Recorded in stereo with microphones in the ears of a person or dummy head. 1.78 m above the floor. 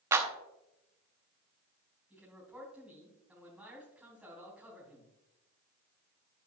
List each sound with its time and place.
0.1 s a clap: 20° right (ahead or behind), 0.9 m
2.1 s a man speaking: 10° right (ahead or behind), 4 m